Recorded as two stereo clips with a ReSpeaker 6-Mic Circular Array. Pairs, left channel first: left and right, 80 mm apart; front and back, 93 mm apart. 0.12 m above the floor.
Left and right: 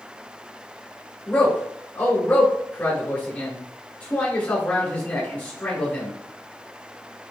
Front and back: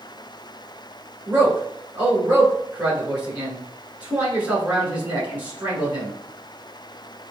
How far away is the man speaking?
About 1.4 m.